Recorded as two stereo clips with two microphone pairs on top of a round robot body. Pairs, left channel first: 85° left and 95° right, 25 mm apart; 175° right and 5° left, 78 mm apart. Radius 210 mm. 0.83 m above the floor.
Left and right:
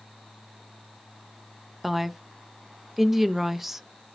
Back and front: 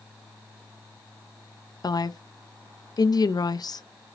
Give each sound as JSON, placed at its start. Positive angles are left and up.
{"t": 1.8, "sound": "a woman speaking", "azimuth_deg": 180, "distance_m": 0.5}